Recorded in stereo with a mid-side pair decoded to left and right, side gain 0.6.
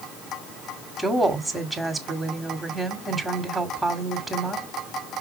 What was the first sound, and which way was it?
A woman speaking, 5° right.